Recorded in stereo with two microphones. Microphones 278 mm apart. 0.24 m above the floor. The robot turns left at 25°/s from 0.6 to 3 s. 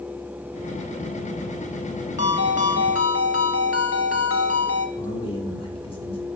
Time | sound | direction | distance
2.2 | a ringtone | 55° left (ahead or behind) | 1.1 m
5.0 | a man speaking | 20° left (ahead or behind) | 1.8 m